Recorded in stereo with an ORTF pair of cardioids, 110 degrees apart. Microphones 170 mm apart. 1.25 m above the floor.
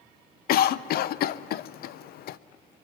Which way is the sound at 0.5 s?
65° left.